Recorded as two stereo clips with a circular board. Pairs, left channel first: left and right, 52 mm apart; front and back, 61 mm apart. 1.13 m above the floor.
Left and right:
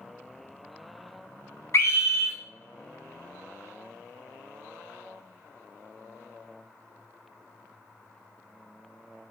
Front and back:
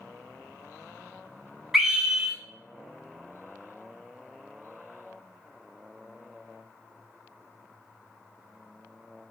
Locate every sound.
1.7 s a scream: 95° left, 0.8 m